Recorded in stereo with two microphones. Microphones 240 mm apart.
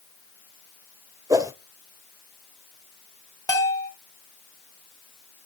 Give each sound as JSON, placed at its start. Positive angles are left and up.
{"t": 1.3, "sound": "a whoosh", "side_deg": -15, "distance_m": 0.8}
{"t": 3.5, "sound": "a bell", "side_deg": 15, "distance_m": 2.5}